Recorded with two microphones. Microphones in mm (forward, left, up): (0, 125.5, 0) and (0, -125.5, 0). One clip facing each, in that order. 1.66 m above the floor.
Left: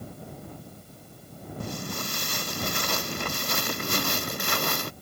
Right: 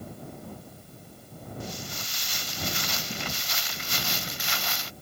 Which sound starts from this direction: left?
Footsteps, at 1.6 s.